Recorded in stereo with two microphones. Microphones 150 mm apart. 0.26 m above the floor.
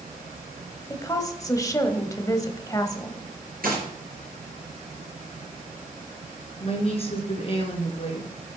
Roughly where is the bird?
No bird in this recording.